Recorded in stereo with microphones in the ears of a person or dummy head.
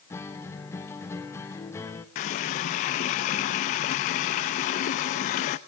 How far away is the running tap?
About 0.6 m.